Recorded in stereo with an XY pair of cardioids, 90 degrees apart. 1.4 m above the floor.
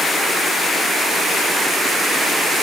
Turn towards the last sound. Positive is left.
No sound to turn to.